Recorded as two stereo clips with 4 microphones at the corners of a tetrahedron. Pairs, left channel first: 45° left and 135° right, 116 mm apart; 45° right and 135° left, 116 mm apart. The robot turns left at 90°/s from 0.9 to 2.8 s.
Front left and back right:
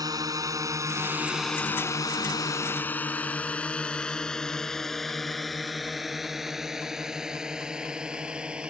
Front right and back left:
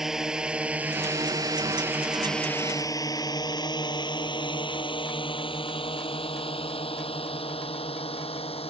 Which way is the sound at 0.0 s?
140° right.